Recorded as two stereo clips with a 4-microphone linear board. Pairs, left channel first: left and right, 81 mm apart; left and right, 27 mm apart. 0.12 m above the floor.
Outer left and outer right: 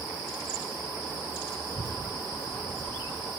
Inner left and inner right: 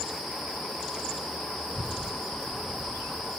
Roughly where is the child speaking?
Left.